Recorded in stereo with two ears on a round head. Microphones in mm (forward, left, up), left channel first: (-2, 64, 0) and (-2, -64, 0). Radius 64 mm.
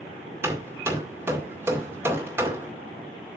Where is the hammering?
15° right (ahead or behind), 2 m.